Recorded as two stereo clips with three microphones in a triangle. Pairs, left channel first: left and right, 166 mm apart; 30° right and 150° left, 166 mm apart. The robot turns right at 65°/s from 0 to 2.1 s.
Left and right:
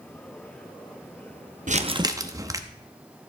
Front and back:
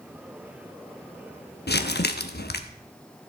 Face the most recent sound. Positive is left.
turn(degrees=-20)